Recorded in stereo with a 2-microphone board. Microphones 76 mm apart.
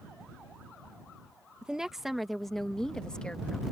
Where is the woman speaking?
10° right (ahead or behind); by 3.6 s 15° left (ahead or behind).